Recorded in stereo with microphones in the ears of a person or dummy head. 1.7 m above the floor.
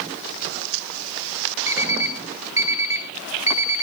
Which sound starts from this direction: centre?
An alarm clock, at 1.7 s.